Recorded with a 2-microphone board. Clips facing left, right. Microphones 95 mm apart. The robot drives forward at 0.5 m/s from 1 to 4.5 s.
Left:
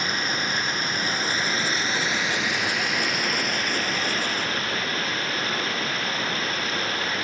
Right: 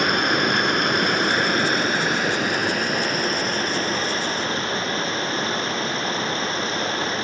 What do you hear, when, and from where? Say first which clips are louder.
0.0 s running water: right 7 dB; 70° right (ahead or behind), 1.3 m; by 7.2 s 30° right (ahead or behind), 2.5 m